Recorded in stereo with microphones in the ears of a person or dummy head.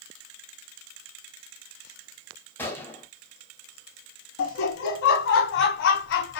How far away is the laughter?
About 0.6 m.